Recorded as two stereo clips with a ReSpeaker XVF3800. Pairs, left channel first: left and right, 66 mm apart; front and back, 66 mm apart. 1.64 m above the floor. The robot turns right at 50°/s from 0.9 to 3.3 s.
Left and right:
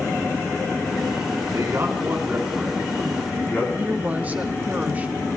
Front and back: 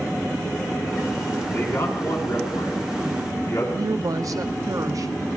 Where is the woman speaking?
150° right, 0.6 m.